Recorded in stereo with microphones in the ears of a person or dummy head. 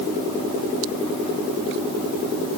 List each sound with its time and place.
Only background noise.